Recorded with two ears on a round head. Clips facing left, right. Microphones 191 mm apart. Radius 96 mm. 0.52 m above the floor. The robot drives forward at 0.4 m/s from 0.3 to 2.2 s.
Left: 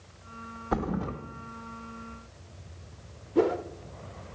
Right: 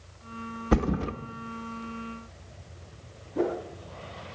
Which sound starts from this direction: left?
A whoosh, at 3.4 s.